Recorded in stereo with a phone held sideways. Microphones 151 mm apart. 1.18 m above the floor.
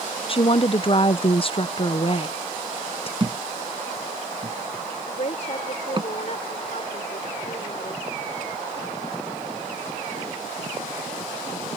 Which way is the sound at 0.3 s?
40° left (ahead or behind).